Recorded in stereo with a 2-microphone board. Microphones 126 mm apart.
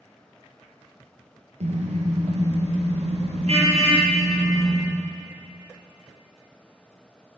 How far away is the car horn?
About 5.5 m.